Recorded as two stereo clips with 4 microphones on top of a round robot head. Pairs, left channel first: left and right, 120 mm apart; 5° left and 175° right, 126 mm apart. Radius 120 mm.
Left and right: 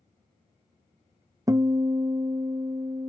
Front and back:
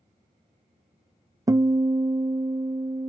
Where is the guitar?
130° right, 0.6 m.